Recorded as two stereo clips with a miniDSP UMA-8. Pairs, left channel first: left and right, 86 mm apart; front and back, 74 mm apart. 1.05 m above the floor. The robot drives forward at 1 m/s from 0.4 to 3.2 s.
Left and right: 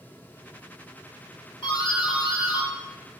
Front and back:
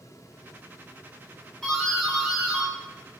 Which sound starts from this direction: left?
A doorbell, at 1.6 s.